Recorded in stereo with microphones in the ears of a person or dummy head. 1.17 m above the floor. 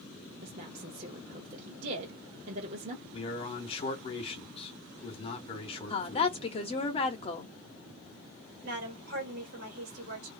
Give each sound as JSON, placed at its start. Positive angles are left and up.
{"t": 0.4, "sound": "a woman speaking", "side_deg": -40, "distance_m": 0.7}
{"t": 3.1, "sound": "a man speaking", "side_deg": 35, "distance_m": 0.9}
{"t": 5.9, "sound": "a woman speaking", "side_deg": 30, "distance_m": 0.8}
{"t": 8.6, "sound": "a woman speaking", "side_deg": -60, "distance_m": 1.5}